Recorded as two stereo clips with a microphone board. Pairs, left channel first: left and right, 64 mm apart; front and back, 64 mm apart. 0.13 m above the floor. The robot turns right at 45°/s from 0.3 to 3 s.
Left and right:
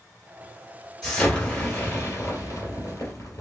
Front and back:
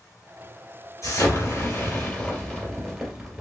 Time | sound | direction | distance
1.0 | an explosion | 5° left | 2 m